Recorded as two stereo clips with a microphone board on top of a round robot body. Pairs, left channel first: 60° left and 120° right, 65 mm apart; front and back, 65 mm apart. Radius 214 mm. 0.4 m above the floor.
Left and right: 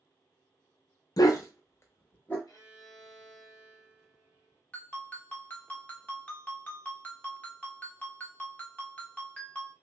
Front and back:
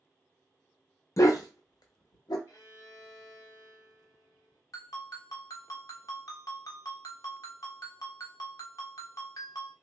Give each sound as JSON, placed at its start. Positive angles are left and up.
{"t": 1.2, "sound": "a dog barking", "azimuth_deg": 40, "distance_m": 0.5}
{"t": 2.5, "sound": "a violin", "azimuth_deg": 40, "distance_m": 0.9}
{"t": 4.7, "sound": "a ringtone", "azimuth_deg": -5, "distance_m": 1.4}